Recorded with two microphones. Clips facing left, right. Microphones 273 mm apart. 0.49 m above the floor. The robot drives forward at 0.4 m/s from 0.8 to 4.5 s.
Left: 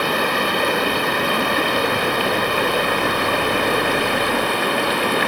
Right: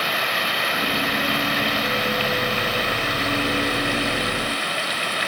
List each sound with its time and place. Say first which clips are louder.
0.0 s running water: left 8 dB; 60° left (ahead or behind); by 5.3 s 65° left (ahead or behind)